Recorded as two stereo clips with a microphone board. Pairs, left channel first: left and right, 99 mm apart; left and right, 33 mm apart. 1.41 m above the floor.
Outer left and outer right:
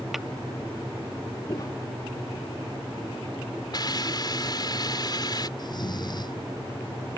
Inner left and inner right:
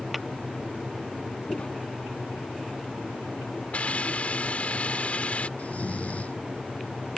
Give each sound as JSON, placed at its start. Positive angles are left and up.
{"t": 0.1, "sound": "tapping", "side_deg": -5}
{"t": 1.5, "sound": "footsteps", "side_deg": 35}
{"t": 3.7, "sound": "a hiss", "side_deg": 45}
{"t": 5.6, "sound": "snoring", "side_deg": 45}